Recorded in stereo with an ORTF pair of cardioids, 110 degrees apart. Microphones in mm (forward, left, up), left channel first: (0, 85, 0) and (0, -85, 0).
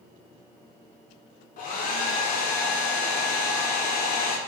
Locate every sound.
1.6 s a hair dryer: 60° left, 0.6 m